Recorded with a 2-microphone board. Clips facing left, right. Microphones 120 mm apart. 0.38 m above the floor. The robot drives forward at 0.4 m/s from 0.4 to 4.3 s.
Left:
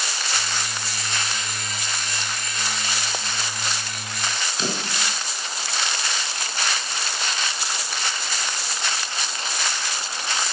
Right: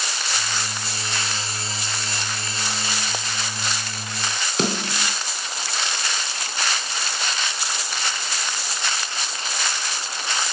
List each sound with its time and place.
4.6 s a snare drum: 70° right (ahead or behind), 3.5 m